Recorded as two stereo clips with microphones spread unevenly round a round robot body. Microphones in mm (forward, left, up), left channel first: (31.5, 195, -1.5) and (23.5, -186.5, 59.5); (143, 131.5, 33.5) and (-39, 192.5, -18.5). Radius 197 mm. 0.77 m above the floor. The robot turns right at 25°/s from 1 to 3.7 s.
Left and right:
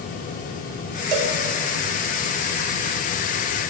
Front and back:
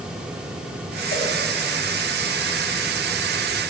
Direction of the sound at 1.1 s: 90° right.